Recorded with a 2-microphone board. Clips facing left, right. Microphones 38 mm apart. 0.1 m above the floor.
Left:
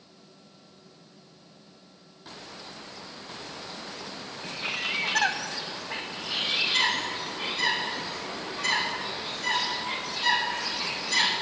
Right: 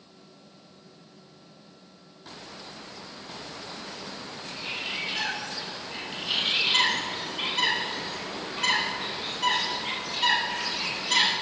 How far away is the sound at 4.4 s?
About 0.9 m.